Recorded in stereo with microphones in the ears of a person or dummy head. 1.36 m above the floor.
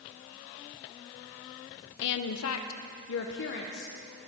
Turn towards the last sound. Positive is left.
turn(degrees=55)  # may be behind; listen again after turning